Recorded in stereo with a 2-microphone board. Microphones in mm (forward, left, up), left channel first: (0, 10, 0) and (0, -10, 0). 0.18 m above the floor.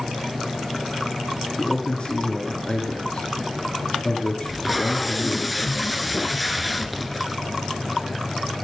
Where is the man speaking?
55° left (ahead or behind), 3 m.